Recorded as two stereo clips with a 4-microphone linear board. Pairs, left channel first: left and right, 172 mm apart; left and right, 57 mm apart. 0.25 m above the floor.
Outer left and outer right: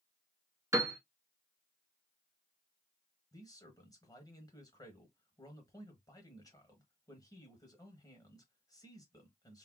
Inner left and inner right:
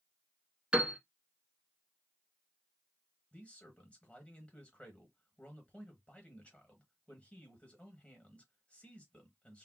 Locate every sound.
0.7 s a piano: 20° right (ahead or behind), 0.8 m
3.3 s a man speaking: 20° left (ahead or behind), 1.0 m